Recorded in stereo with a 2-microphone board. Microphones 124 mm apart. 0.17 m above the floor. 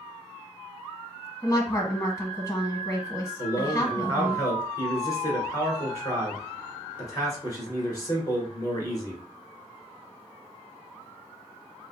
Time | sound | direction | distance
1.4 | a woman speaking | 25° left (ahead or behind) | 1.2 m
3.4 | a man speaking | 30° left (ahead or behind) | 2 m